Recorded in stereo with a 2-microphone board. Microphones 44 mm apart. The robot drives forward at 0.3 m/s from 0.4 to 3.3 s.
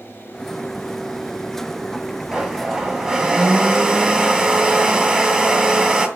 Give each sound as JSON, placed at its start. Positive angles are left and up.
{"t": 2.3, "sound": "a blender", "side_deg": -15, "distance_m": 2.5}